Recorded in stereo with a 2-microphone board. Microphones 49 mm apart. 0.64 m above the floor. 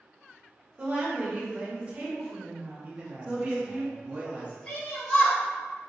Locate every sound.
0.8 s a woman speaking: 25° right (ahead or behind), 1.4 m
2.8 s a man speaking: 30° right (ahead or behind), 0.8 m
4.7 s a shout: 20° left (ahead or behind), 1.8 m